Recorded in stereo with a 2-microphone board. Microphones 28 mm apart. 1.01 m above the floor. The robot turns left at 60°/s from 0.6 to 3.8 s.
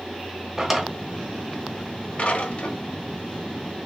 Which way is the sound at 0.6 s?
15° right (ahead or behind).